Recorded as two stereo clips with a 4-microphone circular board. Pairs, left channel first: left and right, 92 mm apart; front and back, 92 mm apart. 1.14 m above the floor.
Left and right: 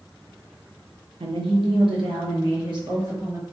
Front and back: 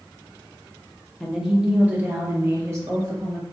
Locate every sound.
1.2 s a woman speaking: 90° right, 0.7 m; by 3.4 s 130° right, 1.6 m